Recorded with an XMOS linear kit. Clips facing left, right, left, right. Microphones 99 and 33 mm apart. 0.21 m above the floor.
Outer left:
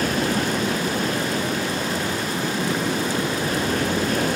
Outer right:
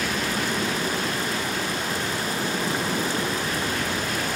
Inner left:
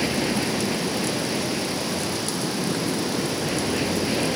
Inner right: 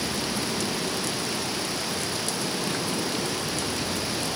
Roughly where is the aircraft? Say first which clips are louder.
Outer left 5 dB, inner left 5 dB; left.